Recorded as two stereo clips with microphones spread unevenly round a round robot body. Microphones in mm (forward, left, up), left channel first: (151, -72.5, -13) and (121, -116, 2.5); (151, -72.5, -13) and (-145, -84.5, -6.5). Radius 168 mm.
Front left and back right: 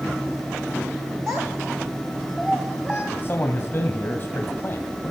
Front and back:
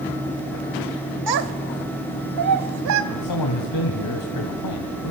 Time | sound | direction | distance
1.3 | a child speaking | 165° left | 1.9 m
3.1 | a man speaking | 10° left | 3.5 m